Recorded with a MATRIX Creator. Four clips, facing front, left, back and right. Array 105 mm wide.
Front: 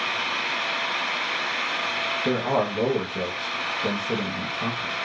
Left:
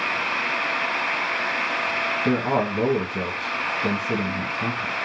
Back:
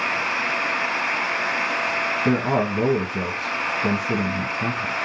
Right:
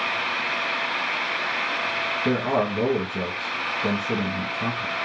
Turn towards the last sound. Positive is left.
turn(degrees=175)